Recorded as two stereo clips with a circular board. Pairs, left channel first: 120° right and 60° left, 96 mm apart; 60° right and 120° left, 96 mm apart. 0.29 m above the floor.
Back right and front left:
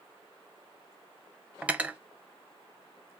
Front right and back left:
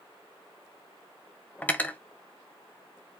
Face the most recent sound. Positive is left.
turn(degrees=0)